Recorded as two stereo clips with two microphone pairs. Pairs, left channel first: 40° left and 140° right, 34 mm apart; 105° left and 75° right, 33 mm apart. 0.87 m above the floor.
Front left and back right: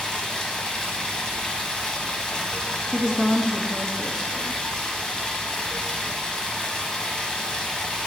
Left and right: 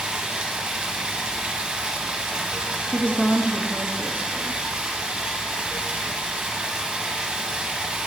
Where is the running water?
25° right, 0.9 m.